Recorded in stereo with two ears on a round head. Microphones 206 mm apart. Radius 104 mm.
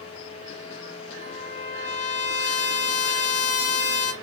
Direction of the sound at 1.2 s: 35° left (ahead or behind).